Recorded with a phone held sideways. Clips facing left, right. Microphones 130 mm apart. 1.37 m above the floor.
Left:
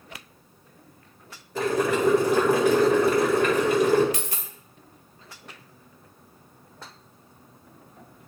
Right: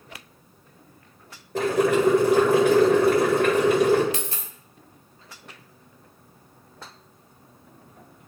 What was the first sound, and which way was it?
Boiling, 65° right (ahead or behind).